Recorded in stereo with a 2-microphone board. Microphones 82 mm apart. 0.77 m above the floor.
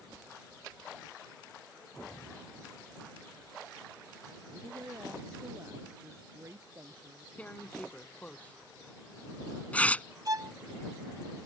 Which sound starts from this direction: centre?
Tearing paper, at 7.4 s.